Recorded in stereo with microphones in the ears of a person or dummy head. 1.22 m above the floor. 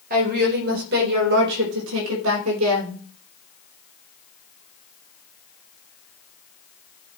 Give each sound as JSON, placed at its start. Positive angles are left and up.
{"t": 0.1, "sound": "a woman speaking", "side_deg": -50, "distance_m": 4.5}